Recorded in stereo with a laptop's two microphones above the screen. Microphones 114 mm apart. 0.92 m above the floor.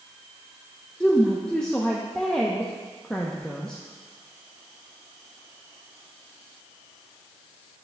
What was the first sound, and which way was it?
A woman speaking, 5° left (ahead or behind).